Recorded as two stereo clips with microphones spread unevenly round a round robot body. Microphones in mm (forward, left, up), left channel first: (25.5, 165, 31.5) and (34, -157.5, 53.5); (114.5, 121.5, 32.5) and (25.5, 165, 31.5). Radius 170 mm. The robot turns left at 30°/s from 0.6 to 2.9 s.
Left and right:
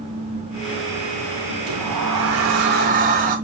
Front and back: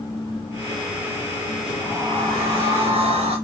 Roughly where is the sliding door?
Behind right.